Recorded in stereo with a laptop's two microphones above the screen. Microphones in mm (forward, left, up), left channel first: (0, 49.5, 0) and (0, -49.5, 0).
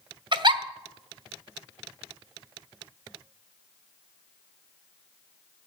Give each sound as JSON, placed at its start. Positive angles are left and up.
{"t": 0.3, "sound": "a giggle", "side_deg": -50, "distance_m": 1.2}